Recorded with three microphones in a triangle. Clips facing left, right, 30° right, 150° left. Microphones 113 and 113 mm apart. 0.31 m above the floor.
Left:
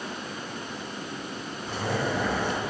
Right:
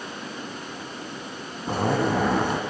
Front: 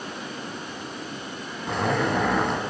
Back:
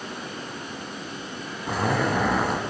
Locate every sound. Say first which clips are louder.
1.7 s a zipper: right 6 dB, even; 125° right, 0.6 m